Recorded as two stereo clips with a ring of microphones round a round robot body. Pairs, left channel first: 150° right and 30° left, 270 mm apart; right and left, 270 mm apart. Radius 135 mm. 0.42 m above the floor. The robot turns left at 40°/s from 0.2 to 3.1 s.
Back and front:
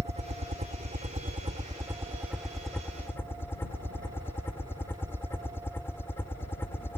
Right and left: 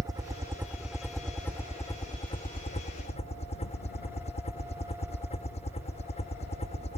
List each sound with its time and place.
0.0 s a helicopter: 35° left; by 7.0 s 80° right